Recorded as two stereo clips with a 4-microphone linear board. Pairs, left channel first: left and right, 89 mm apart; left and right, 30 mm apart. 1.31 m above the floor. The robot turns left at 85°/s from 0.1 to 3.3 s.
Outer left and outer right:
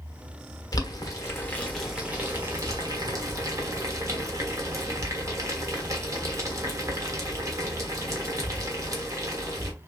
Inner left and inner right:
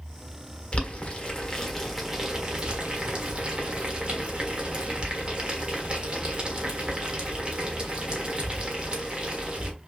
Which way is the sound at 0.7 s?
45° left (ahead or behind).